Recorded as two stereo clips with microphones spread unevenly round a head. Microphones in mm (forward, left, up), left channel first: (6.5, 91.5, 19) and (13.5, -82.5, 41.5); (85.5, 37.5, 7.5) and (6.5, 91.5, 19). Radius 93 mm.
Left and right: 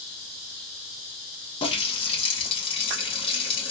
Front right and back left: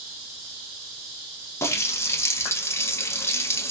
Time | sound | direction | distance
1.6 | a running tap | 30° left | 0.8 m